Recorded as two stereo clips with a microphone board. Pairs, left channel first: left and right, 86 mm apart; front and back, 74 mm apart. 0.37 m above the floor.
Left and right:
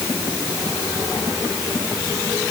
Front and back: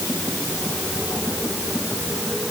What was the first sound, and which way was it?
Only background noise.